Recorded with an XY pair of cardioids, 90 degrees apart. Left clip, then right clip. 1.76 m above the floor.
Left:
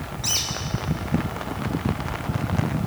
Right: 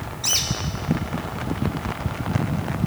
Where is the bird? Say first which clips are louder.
Right 2 dB; 25° right, 2 m.